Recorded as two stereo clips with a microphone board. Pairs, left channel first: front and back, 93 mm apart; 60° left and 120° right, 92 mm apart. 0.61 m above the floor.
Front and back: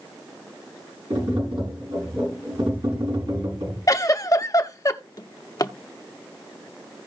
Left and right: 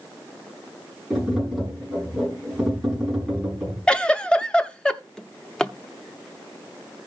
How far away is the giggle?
About 0.6 m.